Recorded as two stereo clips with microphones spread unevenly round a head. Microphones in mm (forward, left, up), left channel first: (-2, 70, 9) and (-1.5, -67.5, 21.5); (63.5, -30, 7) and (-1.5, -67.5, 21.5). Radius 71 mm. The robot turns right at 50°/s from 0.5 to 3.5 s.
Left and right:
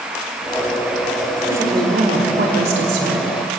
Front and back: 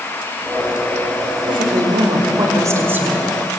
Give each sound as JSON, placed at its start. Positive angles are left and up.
{"t": 1.5, "sound": "a woman speaking", "azimuth_deg": -165, "distance_m": 4.5}